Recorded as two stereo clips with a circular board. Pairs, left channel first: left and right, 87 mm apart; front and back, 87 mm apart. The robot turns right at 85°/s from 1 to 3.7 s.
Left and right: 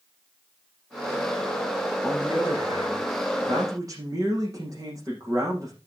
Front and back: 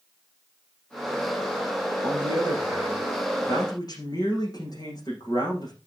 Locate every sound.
2.0 s a man speaking: 175° left, 8 m; by 5.8 s 40° right, 8 m